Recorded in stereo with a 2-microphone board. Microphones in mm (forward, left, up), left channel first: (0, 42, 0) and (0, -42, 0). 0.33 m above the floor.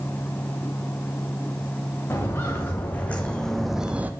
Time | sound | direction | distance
2.1 | footsteps | 30° left (ahead or behind) | 1.7 m